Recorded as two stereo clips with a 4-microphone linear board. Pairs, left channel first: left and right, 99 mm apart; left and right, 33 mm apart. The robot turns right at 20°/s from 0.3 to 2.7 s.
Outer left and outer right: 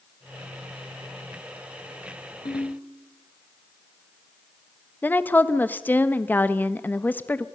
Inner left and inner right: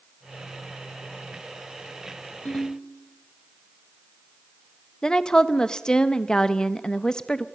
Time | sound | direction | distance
2.5 | a ringtone | 50° left (ahead or behind) | 3.5 m
5.0 | a woman speaking | 20° left (ahead or behind) | 1.0 m